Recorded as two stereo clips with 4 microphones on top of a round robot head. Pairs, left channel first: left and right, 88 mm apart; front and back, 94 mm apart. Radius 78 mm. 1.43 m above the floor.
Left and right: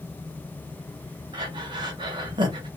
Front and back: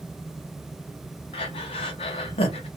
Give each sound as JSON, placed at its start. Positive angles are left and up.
{"t": 1.3, "sound": "breathing", "azimuth_deg": -40, "distance_m": 0.6}